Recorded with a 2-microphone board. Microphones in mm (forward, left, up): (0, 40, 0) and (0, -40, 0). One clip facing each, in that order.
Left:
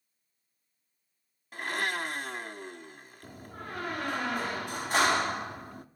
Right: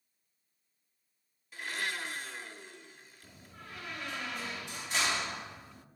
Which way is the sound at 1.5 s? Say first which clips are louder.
Left 5 dB; 55° left (ahead or behind).